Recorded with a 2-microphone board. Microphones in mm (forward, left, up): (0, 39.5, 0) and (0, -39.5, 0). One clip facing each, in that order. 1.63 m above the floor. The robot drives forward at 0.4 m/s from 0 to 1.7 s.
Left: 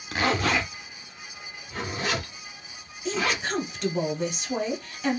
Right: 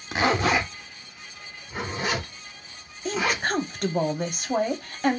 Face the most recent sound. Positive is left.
turn(degrees=-50)  # may be behind; listen again after turning